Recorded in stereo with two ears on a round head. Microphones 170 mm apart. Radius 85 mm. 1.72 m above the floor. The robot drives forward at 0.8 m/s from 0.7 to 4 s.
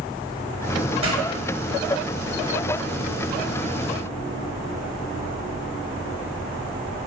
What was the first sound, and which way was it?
A pop, 35° right (ahead or behind).